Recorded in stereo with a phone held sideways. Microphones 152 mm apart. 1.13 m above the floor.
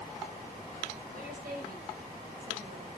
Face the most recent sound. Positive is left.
turn(degrees=-75)  # may be behind; listen again after turning